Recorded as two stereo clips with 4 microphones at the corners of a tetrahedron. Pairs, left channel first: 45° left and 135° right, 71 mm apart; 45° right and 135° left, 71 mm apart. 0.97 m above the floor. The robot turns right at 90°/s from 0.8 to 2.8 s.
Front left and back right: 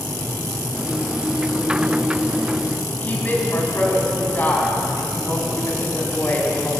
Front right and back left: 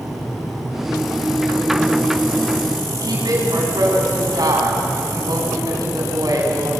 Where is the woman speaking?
110° left, 7 m.